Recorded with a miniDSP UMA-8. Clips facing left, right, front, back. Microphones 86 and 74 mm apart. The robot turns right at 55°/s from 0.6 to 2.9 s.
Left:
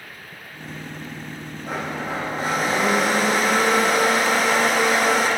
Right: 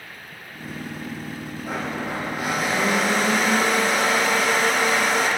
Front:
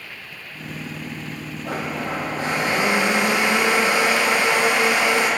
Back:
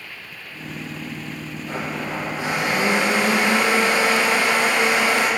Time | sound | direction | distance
1.6 | a blender | 5° right | 8.5 m